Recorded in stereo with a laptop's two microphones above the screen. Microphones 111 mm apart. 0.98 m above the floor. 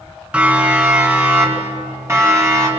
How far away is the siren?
About 7.5 m.